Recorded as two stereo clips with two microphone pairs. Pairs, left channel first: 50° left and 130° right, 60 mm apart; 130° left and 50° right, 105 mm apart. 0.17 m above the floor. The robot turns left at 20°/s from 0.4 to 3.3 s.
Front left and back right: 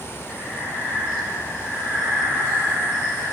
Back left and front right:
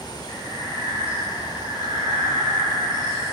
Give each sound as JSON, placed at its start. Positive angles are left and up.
{"t": 0.3, "sound": "breathing", "azimuth_deg": -30, "distance_m": 3.0}